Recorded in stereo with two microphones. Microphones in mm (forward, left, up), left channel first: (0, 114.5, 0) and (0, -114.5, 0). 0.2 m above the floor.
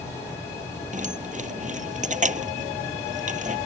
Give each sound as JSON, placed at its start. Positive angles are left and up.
{"t": 0.9, "sound": "keys jangling", "side_deg": -35}